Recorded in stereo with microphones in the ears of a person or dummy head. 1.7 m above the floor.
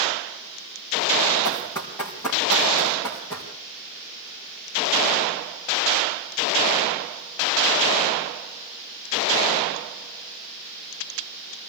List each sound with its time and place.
1.4 s running footsteps: 20° left (ahead or behind), 5 m; by 3.5 s 15° left (ahead or behind), 6.5 m